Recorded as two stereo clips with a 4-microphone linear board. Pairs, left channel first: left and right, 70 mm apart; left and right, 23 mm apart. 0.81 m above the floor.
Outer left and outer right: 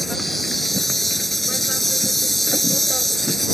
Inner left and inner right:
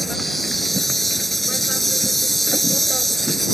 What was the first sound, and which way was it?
An insect, centre (ahead or behind).